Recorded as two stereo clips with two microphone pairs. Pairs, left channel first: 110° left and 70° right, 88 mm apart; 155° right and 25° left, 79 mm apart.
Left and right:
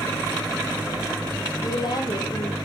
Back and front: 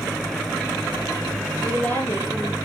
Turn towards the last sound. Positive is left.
turn(degrees=140)